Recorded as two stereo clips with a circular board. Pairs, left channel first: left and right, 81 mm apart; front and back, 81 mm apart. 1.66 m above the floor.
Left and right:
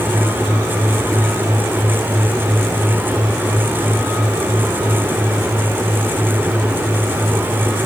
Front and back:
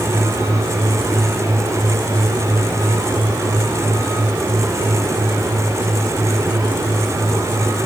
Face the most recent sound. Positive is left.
No sound to turn to.